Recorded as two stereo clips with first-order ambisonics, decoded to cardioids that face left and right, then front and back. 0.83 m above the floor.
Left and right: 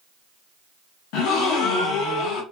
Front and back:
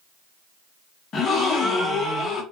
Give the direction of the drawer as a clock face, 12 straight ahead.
No drawer in this recording.